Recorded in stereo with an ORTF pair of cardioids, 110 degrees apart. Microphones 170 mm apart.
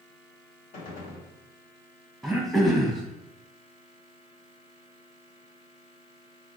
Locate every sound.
0.7 s a gunshot: 50° left, 1.1 m
2.2 s throat clearing: straight ahead, 0.8 m